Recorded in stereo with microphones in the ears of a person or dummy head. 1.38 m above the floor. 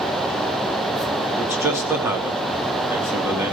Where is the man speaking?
10° right (ahead or behind), 3 m.